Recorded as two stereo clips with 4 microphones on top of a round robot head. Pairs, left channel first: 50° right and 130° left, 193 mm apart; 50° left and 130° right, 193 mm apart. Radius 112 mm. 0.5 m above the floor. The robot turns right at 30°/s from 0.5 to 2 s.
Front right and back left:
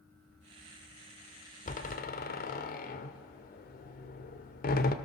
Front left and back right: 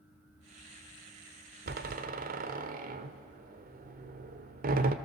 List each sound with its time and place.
1.7 s a door slam: 100° right, 1.1 m; by 5.0 s 90° right, 1.1 m